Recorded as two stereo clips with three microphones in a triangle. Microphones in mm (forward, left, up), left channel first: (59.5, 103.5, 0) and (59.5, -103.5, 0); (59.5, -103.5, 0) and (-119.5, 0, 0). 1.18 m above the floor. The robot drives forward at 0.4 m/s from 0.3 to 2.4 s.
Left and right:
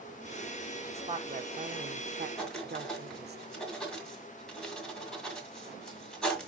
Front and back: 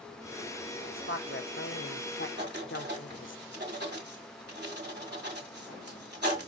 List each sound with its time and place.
0.9 s a woman speaking: 30° right, 1.3 m; by 3.4 s 50° right, 0.8 m
2.4 s writing: 175° left, 2.0 m